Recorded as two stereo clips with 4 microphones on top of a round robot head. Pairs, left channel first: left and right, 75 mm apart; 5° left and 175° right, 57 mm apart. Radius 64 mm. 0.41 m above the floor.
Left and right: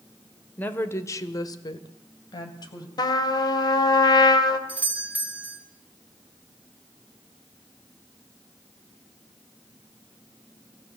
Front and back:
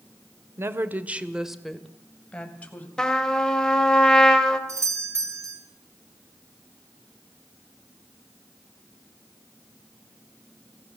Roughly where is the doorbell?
Behind right.